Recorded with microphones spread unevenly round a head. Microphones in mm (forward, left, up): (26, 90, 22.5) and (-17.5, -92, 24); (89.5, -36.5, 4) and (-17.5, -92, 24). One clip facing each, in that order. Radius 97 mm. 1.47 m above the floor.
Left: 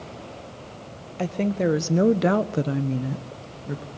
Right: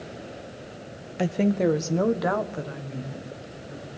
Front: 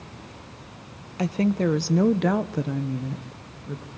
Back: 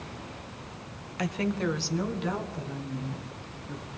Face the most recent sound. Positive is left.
turn(degrees=75)